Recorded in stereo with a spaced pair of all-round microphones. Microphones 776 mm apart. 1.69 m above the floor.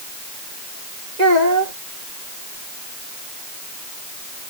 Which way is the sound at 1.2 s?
60° right (ahead or behind).